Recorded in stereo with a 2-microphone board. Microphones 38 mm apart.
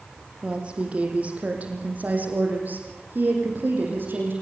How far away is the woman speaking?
About 4.5 m.